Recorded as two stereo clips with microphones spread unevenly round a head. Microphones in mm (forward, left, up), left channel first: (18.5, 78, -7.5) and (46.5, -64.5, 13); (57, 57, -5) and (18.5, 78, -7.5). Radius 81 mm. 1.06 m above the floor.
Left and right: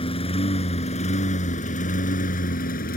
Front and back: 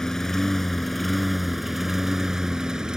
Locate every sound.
0.0 s a lawn mower: 50° left; by 3.0 s 75° left